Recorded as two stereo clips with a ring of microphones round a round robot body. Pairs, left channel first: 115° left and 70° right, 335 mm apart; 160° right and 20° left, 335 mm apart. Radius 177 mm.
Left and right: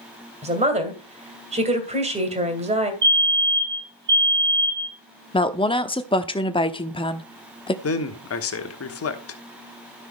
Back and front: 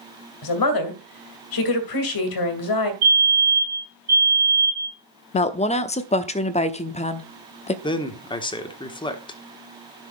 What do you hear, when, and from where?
0.4 s a woman speaking: 140° right, 2.5 m
3.0 s a fire alarm: 10° right, 3.5 m
5.3 s a woman speaking: 165° left, 0.8 m
7.8 s a man speaking: 130° left, 1.4 m